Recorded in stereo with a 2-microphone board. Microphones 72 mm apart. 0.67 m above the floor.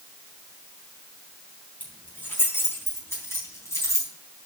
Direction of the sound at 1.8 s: 25° left (ahead or behind).